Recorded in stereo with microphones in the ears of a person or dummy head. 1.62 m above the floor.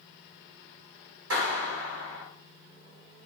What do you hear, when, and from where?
1.3 s a clap: 80° right, 6 m